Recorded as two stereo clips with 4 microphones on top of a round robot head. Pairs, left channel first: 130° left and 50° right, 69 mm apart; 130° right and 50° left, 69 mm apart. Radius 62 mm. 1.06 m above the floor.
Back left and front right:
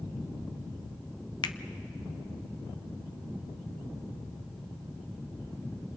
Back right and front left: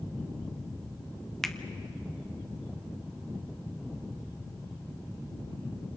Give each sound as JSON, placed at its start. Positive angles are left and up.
{"t": 1.4, "sound": "a finger snap", "azimuth_deg": 145, "distance_m": 0.8}